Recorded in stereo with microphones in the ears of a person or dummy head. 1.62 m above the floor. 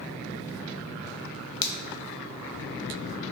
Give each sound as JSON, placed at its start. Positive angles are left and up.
{"t": 1.6, "sound": "a finger snap", "side_deg": 80, "distance_m": 0.6}